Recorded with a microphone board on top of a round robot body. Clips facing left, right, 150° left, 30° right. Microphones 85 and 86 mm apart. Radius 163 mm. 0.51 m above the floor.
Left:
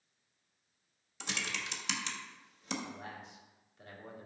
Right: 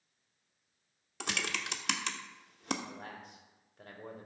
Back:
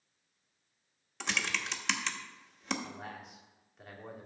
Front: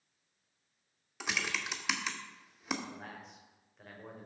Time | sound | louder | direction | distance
1.2 | typing on a keyboard | right 3 dB, back 1 dB | 115° right | 1.0 m
2.8 | a man speaking | even, back 2 dB | 125° right | 2.5 m